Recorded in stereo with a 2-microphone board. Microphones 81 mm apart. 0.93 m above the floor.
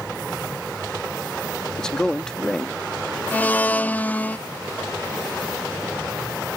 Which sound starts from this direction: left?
A blender, at 3.3 s.